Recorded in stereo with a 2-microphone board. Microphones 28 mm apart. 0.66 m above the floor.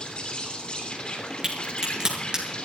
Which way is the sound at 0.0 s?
35° left (ahead or behind).